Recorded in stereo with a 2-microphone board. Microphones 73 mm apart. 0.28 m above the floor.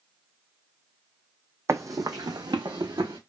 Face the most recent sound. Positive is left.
turn(degrees=-70)  # may be behind; listen again after turning